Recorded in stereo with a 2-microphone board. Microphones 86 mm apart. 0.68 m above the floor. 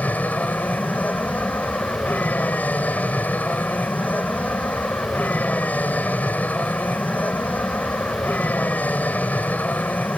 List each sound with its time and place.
0.0 s an aircraft: 20° left (ahead or behind)